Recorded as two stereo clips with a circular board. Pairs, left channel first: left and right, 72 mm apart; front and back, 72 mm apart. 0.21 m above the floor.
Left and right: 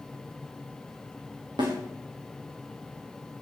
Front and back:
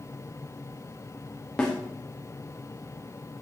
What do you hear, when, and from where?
1.6 s a snare drum: 85° right, 5.5 m